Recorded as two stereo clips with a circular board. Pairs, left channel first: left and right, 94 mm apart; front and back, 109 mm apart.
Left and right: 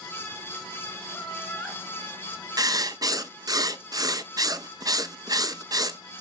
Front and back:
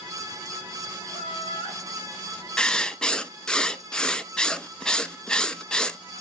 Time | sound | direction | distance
1.1 | laughter | 10° left | 2.5 m
2.6 | writing | 80° right | 0.5 m